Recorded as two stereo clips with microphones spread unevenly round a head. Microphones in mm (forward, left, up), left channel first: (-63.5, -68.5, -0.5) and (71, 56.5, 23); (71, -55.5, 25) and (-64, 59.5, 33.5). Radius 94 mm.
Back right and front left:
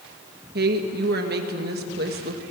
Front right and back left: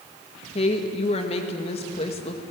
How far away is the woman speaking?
About 1.8 m.